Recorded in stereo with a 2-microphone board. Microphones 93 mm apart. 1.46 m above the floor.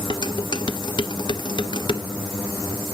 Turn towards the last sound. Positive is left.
turn(degrees=55)  # may be behind; listen again after turning